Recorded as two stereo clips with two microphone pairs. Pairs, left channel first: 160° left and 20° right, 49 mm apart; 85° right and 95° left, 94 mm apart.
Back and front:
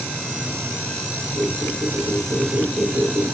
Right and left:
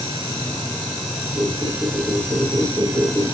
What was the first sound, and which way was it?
A squeak, straight ahead.